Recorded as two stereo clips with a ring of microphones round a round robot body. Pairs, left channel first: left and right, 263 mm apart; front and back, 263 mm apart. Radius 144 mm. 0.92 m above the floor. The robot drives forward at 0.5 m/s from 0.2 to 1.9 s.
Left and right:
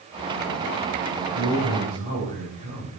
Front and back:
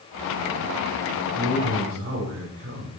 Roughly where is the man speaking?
Behind right.